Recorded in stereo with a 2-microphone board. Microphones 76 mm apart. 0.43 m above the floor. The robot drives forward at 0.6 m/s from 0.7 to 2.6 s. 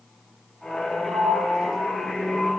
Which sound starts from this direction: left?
A sliding door, at 1.1 s.